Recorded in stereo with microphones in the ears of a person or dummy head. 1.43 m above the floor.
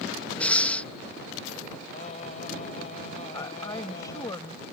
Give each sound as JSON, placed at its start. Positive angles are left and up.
{"t": 0.4, "sound": "breathing", "side_deg": 5}
{"t": 1.9, "sound": "singing", "side_deg": 40}
{"t": 3.3, "sound": "a woman speaking", "side_deg": 25}